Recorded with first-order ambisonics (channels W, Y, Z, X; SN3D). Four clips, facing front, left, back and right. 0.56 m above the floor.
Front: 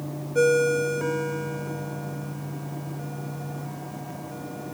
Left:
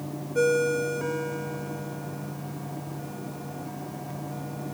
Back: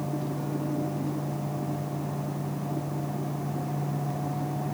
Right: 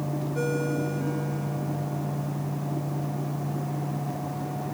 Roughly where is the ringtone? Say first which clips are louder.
Left 7 dB, front 11 dB; ahead.